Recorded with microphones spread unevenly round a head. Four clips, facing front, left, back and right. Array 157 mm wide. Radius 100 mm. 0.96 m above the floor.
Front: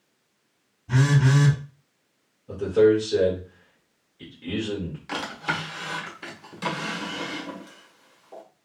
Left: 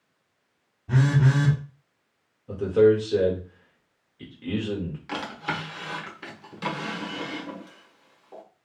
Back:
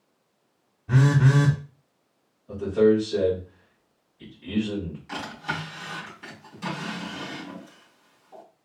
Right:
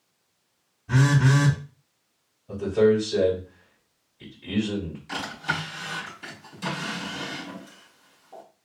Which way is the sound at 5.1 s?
30° left.